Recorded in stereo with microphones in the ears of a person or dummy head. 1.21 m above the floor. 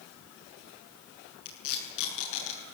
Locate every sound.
1.4 s tape being pulled: 75° left (ahead or behind), 8.5 m